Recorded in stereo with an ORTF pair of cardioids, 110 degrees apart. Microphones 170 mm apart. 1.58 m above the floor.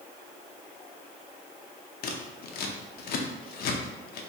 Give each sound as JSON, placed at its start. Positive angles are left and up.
{"t": 2.0, "sound": "scissors", "azimuth_deg": 65, "distance_m": 0.6}